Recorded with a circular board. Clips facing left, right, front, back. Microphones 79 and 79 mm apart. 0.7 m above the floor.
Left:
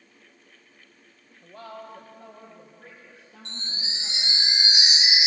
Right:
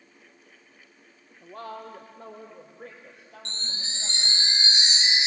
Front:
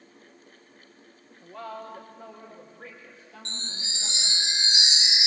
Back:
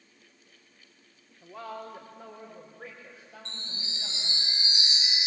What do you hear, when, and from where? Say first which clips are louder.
1.4 s a woman speaking: right 2 dB, front 1 dB; 95° right, 1.6 m; by 4.4 s 100° right, 5.5 m
3.5 s a chime: left 1 dB, front 5 dB; 10° left, 0.6 m